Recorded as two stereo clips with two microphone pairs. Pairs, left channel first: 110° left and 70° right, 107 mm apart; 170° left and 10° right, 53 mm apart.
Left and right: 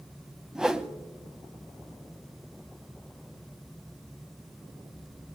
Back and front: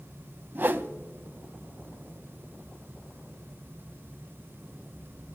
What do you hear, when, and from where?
0.6 s a whoosh: 5° left, 0.6 m